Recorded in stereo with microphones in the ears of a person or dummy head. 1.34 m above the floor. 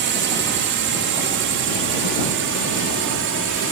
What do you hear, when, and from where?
0.0 s a drone: 55° right (ahead or behind); by 3.7 s 65° right (ahead or behind)